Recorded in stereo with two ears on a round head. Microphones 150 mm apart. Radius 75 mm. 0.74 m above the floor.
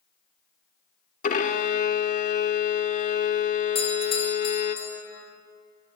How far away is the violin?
About 1.7 m.